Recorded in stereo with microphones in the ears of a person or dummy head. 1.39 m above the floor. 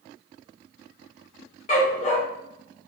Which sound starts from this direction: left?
A dog barking, at 1.7 s.